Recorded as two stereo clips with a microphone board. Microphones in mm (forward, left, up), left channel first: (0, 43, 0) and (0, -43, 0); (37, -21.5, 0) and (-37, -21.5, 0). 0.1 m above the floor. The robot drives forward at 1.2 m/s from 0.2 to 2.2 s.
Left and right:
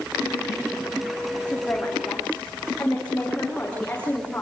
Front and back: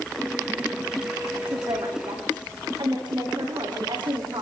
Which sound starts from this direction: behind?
A woman speaking, at 1.5 s.